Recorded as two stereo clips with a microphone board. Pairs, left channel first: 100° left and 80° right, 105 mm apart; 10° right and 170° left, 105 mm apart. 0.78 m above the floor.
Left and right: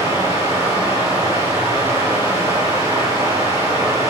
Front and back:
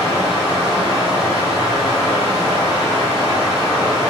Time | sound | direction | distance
0.0 | running water | 60° right | 1.7 m